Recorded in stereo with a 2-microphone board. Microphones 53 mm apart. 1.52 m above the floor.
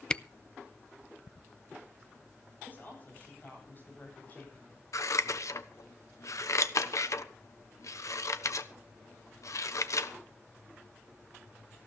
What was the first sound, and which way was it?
A camera shutter, 15° left (ahead or behind).